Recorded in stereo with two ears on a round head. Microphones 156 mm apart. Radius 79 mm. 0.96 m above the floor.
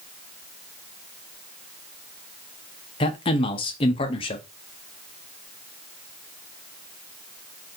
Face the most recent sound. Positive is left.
turn(degrees=30)  # may be behind; listen again after turning